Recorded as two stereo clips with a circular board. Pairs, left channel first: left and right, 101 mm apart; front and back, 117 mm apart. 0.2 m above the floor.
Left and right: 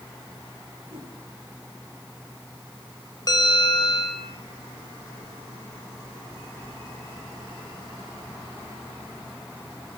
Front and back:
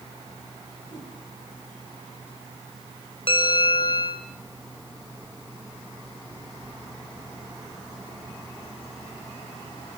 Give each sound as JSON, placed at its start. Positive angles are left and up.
{"t": 0.9, "sound": "a whoosh", "azimuth_deg": -45, "distance_m": 7.5}
{"t": 3.3, "sound": "a bell", "azimuth_deg": 40, "distance_m": 2.0}